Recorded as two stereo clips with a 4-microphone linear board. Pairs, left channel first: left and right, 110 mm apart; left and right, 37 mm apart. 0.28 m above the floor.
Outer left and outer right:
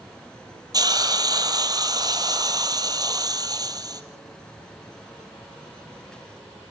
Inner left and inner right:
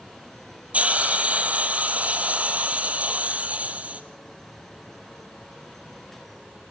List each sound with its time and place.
0.7 s a hiss: 35° right (ahead or behind), 2.5 m